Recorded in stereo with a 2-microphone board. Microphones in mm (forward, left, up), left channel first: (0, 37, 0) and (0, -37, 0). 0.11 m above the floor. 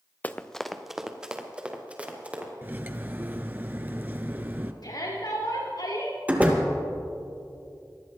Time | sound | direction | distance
0.2 | running footsteps | 20° left (ahead or behind) | 0.8 m
2.6 | cutlery clinking | 25° right (ahead or behind) | 0.9 m
4.8 | a shout | 75° left (ahead or behind) | 5 m
6.3 | a door slam | 20° right (ahead or behind) | 2 m